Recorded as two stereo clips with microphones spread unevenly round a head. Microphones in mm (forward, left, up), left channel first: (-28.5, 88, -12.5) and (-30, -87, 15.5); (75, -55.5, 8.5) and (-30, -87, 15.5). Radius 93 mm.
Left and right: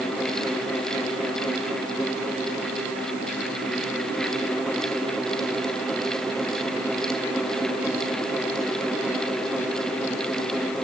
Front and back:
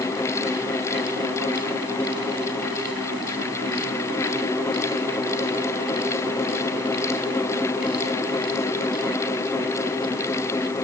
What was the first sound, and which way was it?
Only background noise.